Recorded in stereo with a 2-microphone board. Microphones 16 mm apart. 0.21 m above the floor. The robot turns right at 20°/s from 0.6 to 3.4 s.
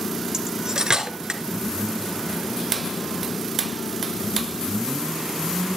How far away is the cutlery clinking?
About 1.8 m.